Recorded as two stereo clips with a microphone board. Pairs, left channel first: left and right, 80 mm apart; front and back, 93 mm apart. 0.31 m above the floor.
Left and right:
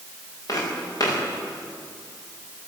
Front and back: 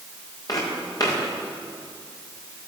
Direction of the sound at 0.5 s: 45° left.